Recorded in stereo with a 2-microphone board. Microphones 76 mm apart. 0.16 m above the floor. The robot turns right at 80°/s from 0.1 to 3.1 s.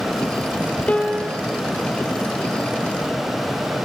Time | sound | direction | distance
0.9 | a piano | 160° left | 1.1 m